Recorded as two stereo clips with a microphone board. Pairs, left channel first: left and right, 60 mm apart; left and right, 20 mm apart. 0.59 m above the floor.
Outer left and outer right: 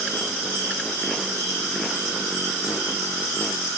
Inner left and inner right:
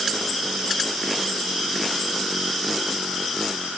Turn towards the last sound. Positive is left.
No sound to turn to.